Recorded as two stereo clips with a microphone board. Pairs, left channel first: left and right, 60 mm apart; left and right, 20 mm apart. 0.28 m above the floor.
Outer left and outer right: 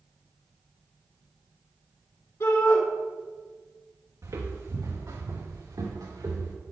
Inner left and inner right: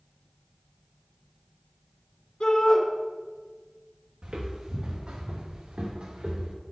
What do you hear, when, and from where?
2.4 s a shout: 65° left (ahead or behind), 2.5 m
4.2 s footsteps: 60° right (ahead or behind), 1.6 m; by 6.5 s 80° right, 3 m